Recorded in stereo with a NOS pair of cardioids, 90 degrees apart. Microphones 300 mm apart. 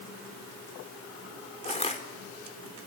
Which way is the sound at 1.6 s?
20° left.